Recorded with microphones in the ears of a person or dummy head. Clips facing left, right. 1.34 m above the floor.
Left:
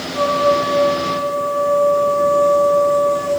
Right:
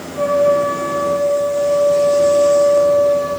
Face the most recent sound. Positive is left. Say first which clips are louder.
# right 3 dB
turn(degrees=55)  # may be behind; listen again after turning